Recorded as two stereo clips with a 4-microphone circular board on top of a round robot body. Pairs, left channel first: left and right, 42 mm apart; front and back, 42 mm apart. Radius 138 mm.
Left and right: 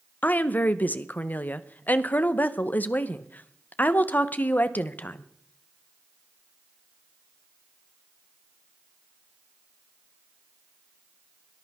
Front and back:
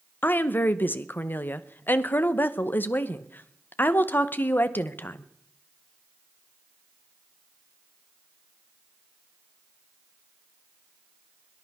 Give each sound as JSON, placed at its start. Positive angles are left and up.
{"t": 0.2, "sound": "a woman speaking", "azimuth_deg": 40, "distance_m": 1.0}